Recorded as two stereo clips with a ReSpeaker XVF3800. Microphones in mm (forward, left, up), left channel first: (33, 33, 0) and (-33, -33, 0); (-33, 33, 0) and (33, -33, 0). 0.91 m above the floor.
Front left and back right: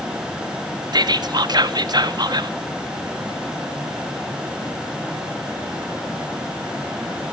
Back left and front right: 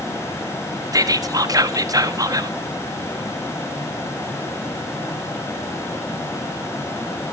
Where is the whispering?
95° right, 1.4 m.